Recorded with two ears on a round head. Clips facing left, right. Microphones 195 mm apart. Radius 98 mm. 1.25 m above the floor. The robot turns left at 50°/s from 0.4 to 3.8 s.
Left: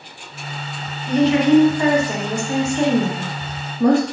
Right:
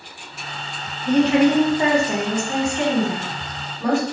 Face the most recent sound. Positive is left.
turn(degrees=100)